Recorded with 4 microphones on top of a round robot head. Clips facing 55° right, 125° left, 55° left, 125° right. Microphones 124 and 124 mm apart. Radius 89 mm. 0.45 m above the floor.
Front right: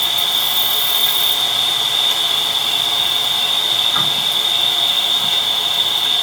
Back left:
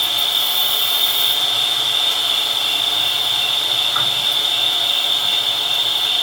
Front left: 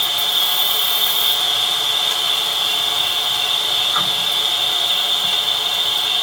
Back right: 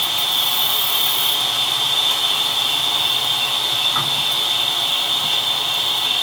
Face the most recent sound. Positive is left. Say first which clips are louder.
# front right 2 dB, even
turn(degrees=-60)